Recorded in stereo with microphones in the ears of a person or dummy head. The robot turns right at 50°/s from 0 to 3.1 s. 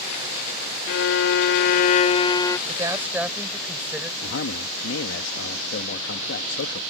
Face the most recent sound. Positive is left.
turn(degrees=75)  # may be behind; listen again after turning